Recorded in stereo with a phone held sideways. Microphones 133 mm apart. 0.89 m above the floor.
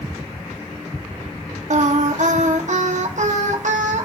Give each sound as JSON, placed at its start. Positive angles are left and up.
{"t": 1.7, "sound": "singing", "side_deg": -65, "distance_m": 0.8}